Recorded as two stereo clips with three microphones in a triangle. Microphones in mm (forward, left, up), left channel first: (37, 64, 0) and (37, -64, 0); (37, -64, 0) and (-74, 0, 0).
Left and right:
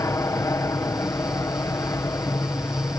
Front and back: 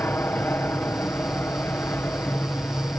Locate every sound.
0.0 s an aircraft: 35° left